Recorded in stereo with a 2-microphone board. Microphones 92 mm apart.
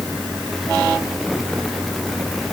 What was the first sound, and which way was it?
Only background noise.